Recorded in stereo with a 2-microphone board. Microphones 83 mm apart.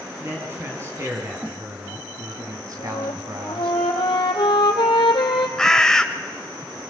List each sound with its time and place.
0.2 s a man speaking: 25° right (ahead or behind), 4.5 m; by 3.7 s 55° right (ahead or behind), 3.5 m
2.8 s a flute: 85° left, 3 m
5.6 s a bird: 5° left (ahead or behind), 1.1 m